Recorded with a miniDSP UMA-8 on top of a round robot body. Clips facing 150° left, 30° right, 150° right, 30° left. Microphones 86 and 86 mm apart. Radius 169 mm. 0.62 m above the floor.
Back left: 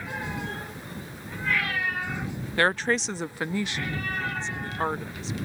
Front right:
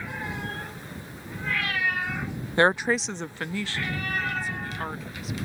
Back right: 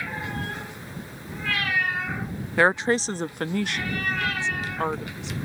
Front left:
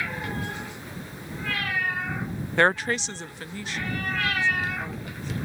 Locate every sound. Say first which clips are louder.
2.6 s a woman speaking: front right 2 dB, back right 2 dB; 65° right; by 5.3 s 150° right